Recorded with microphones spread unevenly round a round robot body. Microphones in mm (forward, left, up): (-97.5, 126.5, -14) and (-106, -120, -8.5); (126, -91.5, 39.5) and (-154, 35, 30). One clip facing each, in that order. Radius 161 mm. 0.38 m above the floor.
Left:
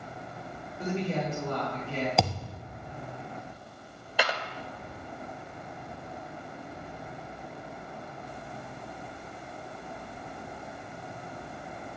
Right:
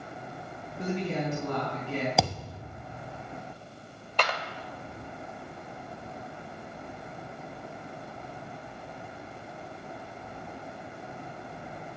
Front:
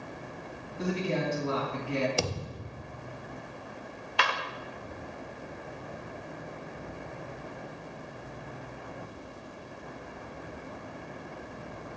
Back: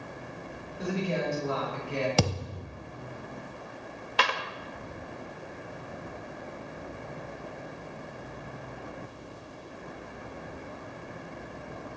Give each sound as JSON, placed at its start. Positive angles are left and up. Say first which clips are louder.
{"t": 0.8, "sound": "a woman speaking", "louder": "even, even", "azimuth_deg": -35, "distance_m": 4.0}
{"t": 2.2, "sound": "a thud", "louder": "even, back 4 dB", "azimuth_deg": 180, "distance_m": 0.9}
{"t": 4.2, "sound": "a clap", "louder": "left 1 dB, back 2 dB", "azimuth_deg": 165, "distance_m": 0.8}